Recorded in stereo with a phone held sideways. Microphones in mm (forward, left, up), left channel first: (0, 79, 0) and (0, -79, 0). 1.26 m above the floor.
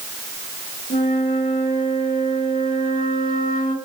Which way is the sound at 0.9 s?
70° left (ahead or behind).